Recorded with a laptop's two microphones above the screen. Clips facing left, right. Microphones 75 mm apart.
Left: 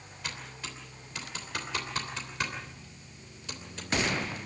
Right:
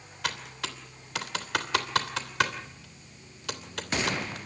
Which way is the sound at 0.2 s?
85° right.